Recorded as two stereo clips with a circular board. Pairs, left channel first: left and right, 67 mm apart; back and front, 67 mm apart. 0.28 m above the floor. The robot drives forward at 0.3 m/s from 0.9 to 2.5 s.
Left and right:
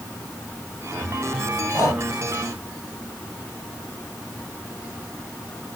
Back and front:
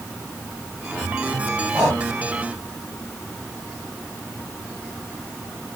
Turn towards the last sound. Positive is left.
turn(degrees=80)